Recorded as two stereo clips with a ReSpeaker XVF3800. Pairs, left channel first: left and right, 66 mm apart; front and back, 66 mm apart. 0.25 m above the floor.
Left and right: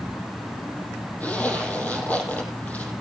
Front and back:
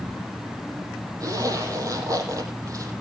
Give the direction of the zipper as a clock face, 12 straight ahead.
7 o'clock.